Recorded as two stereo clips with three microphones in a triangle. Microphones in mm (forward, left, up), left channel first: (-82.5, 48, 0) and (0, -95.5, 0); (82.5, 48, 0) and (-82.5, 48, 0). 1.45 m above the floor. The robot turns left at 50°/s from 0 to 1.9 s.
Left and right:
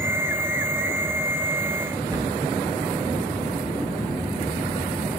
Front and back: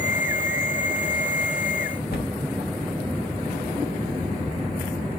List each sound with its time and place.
2.1 s a cupboard door: straight ahead, 1.1 m